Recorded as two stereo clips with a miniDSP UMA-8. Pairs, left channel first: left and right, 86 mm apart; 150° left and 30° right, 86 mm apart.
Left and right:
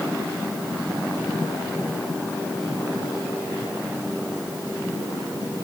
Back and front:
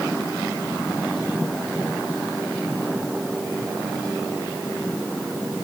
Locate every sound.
Only background noise.